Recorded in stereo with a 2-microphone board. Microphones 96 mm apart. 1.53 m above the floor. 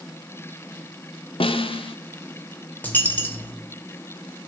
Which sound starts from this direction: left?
A snare drum, at 1.4 s.